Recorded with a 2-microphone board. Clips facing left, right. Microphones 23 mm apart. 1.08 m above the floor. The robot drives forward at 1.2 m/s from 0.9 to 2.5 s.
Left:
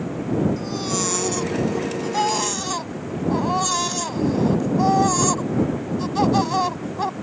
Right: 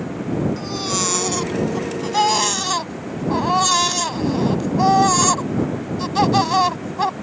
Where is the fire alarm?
No fire alarm in this recording.